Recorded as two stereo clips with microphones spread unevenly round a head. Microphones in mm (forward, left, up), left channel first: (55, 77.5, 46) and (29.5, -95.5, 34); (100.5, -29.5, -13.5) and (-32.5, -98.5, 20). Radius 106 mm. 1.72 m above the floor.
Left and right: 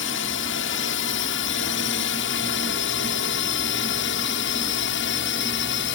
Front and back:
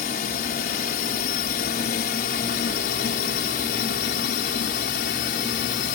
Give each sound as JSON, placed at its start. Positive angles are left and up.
{"t": 0.0, "sound": "a drone", "azimuth_deg": 80}